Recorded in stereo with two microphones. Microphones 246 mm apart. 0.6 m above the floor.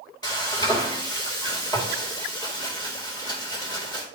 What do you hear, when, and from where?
0.2 s frying: 15° left (ahead or behind), 2 m